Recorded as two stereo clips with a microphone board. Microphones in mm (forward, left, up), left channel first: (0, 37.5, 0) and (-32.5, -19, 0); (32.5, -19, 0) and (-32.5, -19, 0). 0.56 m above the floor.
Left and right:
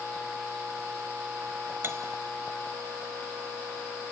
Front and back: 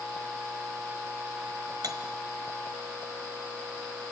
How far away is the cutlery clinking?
About 1.6 m.